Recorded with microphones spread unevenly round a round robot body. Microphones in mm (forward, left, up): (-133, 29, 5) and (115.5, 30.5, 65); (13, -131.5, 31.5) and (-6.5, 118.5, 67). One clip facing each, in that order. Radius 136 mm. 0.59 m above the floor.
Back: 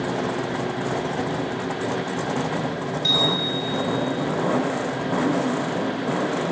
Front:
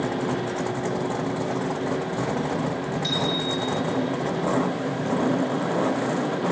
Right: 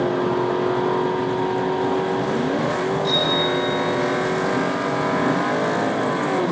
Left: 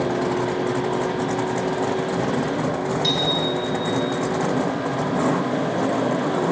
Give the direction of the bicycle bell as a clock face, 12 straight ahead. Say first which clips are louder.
Back 3 dB, right 2 dB; 9 o'clock.